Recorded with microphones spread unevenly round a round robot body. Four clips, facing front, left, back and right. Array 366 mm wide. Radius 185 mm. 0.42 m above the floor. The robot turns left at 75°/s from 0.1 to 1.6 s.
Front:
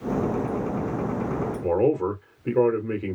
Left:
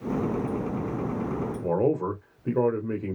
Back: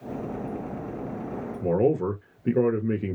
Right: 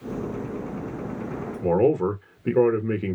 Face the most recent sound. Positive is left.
turn(degrees=-100)